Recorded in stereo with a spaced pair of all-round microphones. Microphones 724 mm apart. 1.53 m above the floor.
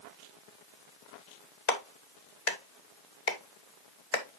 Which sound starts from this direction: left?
A clap, at 1.7 s.